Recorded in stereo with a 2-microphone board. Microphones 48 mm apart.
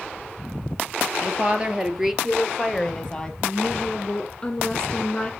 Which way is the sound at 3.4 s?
20° left (ahead or behind).